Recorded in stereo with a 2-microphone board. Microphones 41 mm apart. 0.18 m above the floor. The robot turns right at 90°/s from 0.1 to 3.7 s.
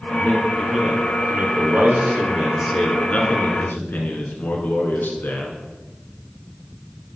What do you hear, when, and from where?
0.1 s a man speaking: 120° left, 2.5 m; by 5.6 s 85° left, 2.5 m